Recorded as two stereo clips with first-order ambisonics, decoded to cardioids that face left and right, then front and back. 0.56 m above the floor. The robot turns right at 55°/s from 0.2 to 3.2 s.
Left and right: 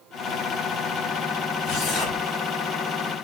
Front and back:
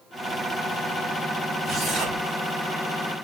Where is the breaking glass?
No breaking glass in this recording.